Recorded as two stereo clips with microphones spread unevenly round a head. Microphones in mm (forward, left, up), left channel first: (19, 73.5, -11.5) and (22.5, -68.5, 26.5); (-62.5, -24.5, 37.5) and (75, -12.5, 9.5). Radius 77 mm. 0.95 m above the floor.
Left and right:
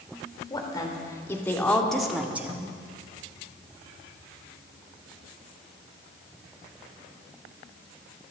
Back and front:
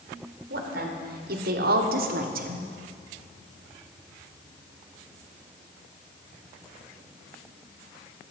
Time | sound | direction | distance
0.5 | a woman speaking | 30° left | 3 m